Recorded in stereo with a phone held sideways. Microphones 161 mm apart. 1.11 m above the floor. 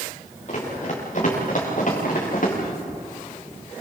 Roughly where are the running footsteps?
Left.